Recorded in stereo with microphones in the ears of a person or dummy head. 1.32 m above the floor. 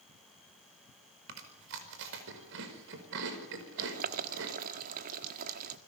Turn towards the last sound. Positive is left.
turn(degrees=-45)  # may be behind; listen again after turning